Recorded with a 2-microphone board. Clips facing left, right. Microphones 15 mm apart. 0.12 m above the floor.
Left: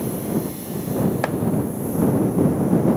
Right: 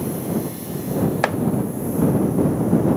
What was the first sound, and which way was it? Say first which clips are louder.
Chopping: right 2 dB; 30° right (ahead or behind).